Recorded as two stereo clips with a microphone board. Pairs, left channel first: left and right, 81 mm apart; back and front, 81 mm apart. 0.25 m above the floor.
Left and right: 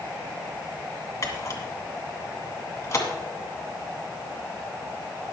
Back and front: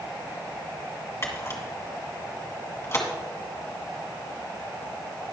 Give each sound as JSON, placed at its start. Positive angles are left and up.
{"t": 1.2, "sound": "a camera shutter", "azimuth_deg": 135, "distance_m": 2.0}